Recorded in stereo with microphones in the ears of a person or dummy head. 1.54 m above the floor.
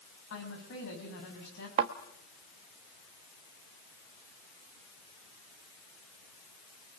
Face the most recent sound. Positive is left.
turn(degrees=-30)  # may be behind; listen again after turning